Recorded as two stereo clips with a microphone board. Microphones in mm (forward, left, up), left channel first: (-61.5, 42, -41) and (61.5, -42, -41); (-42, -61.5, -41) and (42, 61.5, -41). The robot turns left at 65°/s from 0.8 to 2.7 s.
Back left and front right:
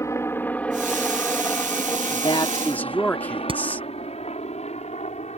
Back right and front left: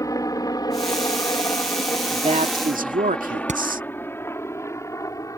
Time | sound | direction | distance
0.0 | a helicopter | 165° right | ?
2.1 | a man speaking | 105° left | ?
3.5 | hammering | 20° left | ?